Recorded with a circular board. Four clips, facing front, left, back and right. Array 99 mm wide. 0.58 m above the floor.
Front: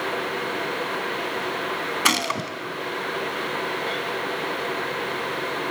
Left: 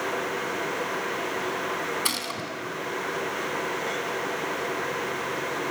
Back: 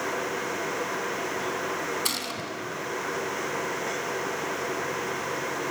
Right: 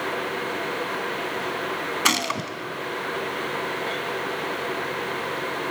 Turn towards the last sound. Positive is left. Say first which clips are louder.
# right 7 dB, front 9 dB
turn(degrees=-40)